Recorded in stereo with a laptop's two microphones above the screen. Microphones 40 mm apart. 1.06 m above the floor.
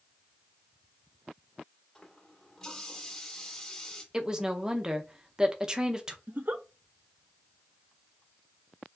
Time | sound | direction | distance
1.9 | a running tap | 15° left (ahead or behind) | 1.9 m
4.1 | a woman speaking | 20° right (ahead or behind) | 0.6 m
6.3 | a giggle | 50° right (ahead or behind) | 0.5 m